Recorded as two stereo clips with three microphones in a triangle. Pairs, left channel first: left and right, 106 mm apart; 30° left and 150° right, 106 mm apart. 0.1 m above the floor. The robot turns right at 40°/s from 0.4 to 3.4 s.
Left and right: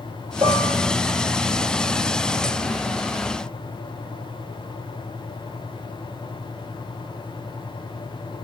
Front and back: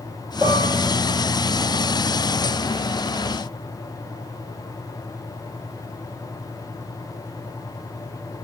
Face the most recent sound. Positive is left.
turn(degrees=20)